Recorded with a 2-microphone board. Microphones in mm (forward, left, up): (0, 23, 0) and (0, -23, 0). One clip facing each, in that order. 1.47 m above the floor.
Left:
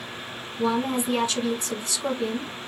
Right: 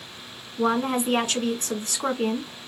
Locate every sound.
0.6 s a woman speaking: 60° right (ahead or behind), 1.6 m